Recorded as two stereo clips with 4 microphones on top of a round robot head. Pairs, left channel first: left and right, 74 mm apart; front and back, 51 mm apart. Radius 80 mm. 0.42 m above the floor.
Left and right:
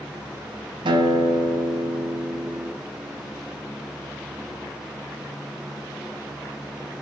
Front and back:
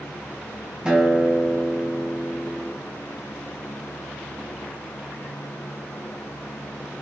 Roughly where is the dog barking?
No dog barking in this recording.